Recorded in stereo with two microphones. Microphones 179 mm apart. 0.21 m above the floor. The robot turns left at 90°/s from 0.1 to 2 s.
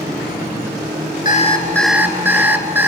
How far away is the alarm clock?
About 1.3 m.